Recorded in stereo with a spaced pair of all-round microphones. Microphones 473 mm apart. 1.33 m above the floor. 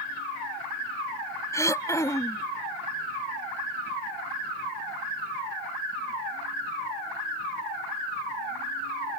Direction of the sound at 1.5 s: 5° left (ahead or behind).